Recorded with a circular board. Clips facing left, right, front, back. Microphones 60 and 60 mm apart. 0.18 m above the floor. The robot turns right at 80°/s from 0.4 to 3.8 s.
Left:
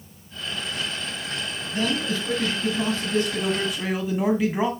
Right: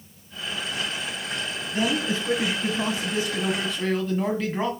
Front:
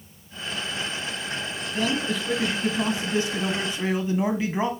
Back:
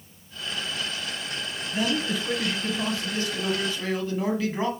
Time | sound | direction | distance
1.7 | a man speaking | 135° right | 1.5 m